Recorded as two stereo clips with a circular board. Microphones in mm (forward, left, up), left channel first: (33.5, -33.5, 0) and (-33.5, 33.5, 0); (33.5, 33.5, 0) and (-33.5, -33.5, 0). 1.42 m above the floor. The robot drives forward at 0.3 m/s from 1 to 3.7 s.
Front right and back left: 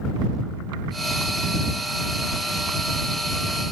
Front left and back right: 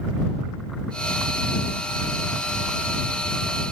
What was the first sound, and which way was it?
Only background noise.